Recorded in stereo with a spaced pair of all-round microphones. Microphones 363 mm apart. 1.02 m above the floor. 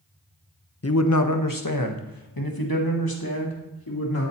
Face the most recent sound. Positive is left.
turn(degrees=70)  # may be behind; listen again after turning